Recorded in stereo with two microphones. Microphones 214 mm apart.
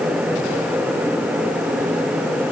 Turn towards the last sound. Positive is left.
No sound to turn to.